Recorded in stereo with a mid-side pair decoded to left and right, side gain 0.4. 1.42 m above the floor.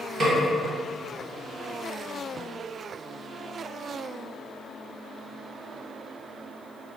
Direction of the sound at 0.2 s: 65° right.